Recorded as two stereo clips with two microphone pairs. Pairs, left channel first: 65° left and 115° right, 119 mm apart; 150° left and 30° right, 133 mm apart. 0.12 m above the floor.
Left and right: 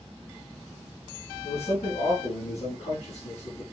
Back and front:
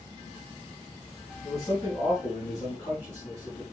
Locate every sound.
1.4 s a man speaking: 90° left, 6.5 m